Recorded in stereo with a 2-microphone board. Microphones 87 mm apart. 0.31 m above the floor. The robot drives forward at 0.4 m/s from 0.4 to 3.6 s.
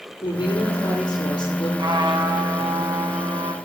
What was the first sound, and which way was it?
A woman speaking, 55° left (ahead or behind).